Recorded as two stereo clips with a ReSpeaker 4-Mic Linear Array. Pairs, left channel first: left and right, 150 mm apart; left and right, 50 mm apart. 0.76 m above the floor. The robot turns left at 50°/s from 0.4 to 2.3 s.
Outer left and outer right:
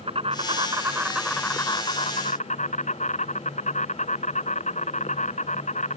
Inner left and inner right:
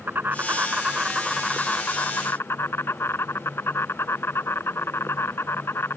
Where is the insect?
140° right; by 6.0 s 125° left.